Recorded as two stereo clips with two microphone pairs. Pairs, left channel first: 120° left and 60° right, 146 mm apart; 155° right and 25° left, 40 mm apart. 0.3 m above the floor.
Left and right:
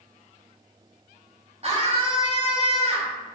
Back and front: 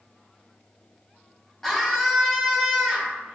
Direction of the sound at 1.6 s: 80° right.